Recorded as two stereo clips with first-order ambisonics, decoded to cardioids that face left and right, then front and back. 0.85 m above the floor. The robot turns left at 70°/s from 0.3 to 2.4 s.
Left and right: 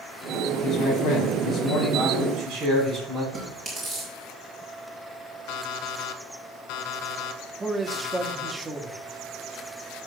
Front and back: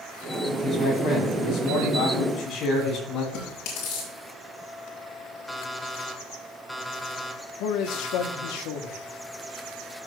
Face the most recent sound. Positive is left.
turn(degrees=-10)